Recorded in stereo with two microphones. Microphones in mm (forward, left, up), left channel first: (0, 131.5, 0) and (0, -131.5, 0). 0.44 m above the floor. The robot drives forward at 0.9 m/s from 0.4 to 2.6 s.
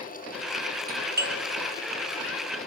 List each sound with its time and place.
0.9 s a doorbell: 35° right (ahead or behind), 1.6 m